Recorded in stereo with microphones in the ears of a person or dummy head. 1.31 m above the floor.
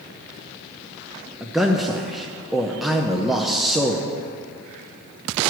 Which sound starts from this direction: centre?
A man speaking, at 1.4 s.